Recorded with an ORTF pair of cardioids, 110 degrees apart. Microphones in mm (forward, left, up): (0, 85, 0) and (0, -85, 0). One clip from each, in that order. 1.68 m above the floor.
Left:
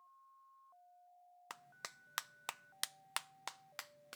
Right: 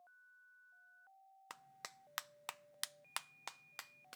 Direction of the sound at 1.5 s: 10° left.